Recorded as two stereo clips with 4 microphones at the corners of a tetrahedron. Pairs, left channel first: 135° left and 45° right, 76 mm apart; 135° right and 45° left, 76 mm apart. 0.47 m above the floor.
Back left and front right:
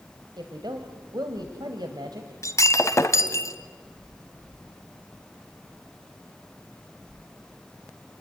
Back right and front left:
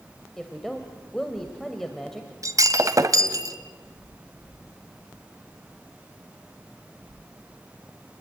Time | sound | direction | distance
0.4 | a woman speaking | 50° right | 2 m
2.4 | breaking glass | 85° left | 1.5 m